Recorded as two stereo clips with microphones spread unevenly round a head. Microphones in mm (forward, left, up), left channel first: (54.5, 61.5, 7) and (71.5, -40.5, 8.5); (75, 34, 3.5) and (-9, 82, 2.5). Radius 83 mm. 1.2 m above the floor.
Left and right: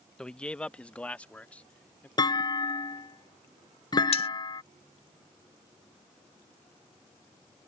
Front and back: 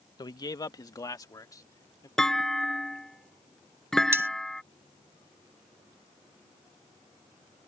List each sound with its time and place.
0.2 s a man speaking: 20° left; by 2.1 s 25° left
2.2 s a clunk: 55° left
4.1 s cutlery clinking: 85° left